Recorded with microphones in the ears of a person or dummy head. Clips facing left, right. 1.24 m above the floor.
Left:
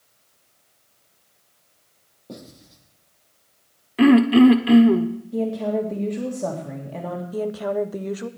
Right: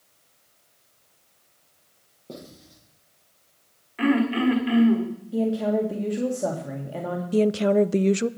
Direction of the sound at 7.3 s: 35° right (ahead or behind).